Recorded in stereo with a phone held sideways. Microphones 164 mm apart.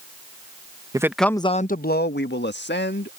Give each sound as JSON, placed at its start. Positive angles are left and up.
{"t": 0.9, "sound": "a man speaking", "side_deg": -20}